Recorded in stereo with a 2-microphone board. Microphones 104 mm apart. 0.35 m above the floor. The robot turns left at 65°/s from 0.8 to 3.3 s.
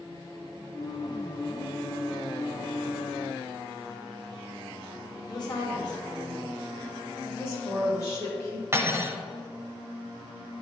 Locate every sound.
5.3 s a woman speaking: 45° left (ahead or behind), 1.7 m
7.2 s a woman speaking: 30° left (ahead or behind), 2.5 m
8.7 s cutlery clinking: 25° right (ahead or behind), 1.0 m